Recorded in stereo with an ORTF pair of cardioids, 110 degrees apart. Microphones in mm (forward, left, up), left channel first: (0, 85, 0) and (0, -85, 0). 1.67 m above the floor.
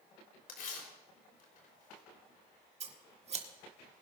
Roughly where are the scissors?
Ahead right.